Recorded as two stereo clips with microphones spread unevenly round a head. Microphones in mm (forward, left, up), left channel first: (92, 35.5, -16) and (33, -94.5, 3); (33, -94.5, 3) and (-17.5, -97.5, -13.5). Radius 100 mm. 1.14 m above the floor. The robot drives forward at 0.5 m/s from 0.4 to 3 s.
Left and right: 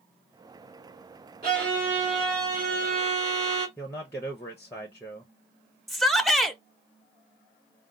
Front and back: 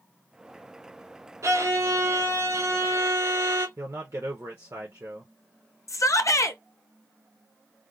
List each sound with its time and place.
1.4 s a violin: 165° right, 3 m; by 3.7 s 170° right, 3.5 m
3.8 s a man speaking: 145° left, 0.5 m
5.9 s a shout: 20° right, 0.7 m